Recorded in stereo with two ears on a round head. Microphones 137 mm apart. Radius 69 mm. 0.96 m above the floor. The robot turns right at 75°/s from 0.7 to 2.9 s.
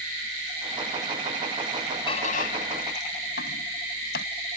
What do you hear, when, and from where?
2.1 s a squeak: 35° left (ahead or behind); by 4.2 s 85° left